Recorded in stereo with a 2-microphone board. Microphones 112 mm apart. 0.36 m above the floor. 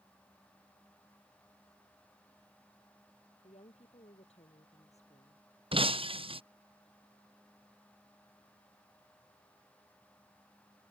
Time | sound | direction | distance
3.4 | a woman speaking | 75° left (ahead or behind) | ?
5.7 | breaking glass | 55° right (ahead or behind) | ?